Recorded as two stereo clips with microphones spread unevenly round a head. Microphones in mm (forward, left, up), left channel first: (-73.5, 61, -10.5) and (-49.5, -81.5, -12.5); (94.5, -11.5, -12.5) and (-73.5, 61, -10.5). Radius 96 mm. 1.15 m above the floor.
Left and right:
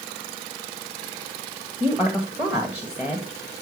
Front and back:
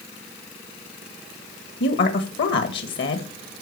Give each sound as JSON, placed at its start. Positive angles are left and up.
{"t": 1.8, "sound": "a woman speaking", "azimuth_deg": 0, "distance_m": 1.8}